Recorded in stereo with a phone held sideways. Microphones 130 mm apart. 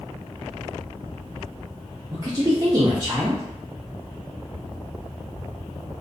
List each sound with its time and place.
2.1 s a woman speaking: 35° right (ahead or behind), 0.5 m